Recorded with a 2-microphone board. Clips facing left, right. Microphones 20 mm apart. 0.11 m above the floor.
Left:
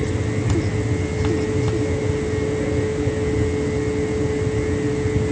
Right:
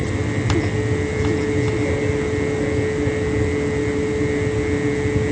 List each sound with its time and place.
Only background noise.